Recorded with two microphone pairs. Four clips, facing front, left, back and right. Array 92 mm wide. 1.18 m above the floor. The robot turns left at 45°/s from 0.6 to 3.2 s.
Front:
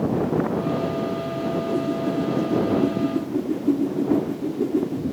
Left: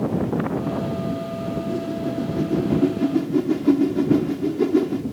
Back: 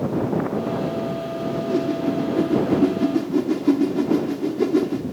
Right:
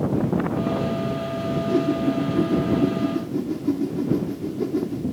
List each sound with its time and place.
1.5 s a whoosh: 130° right; by 5.0 s 155° left